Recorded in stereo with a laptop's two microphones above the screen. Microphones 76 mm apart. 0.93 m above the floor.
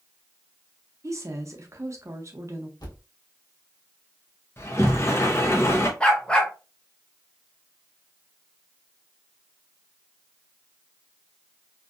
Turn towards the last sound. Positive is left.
turn(degrees=15)  # may be behind; listen again after turning